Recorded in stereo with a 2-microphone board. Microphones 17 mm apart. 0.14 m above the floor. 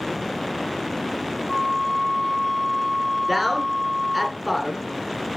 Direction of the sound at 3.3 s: Centre (ahead or behind).